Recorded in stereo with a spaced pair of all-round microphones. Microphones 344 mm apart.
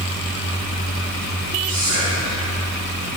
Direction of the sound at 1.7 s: 55° right (ahead or behind).